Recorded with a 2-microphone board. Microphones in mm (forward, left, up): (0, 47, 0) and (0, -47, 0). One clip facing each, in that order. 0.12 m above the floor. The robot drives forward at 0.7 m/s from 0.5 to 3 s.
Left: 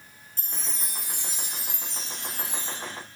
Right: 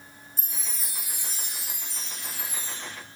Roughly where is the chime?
Centre.